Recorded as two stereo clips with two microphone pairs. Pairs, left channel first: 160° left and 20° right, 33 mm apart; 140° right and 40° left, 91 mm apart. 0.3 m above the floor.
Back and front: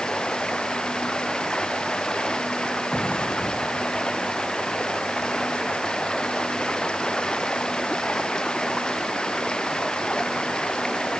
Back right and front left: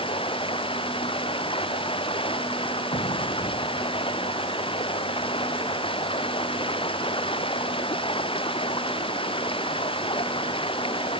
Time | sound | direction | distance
0.0 | running water | 140° right | ?
2.9 | an explosion | 150° right | ?